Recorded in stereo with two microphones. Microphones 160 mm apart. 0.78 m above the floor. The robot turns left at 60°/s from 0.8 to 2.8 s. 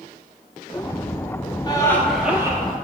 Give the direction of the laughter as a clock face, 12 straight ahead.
11 o'clock.